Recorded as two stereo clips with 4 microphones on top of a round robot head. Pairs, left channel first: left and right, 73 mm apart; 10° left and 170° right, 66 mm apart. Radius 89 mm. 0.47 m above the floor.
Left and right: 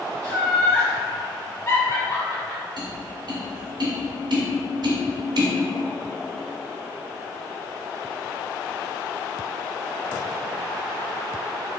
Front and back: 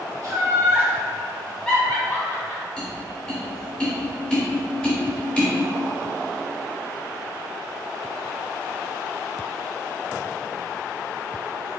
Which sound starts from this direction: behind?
Laughter, at 0.2 s.